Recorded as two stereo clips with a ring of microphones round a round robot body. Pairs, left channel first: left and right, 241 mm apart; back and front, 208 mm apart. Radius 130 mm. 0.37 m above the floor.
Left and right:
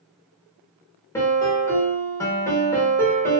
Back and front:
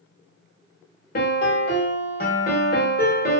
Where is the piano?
165° left, 1.0 m.